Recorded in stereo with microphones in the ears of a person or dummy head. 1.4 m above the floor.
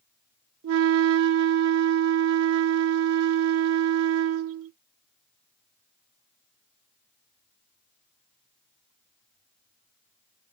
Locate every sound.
0.6 s a flute: 75° right (ahead or behind), 0.5 m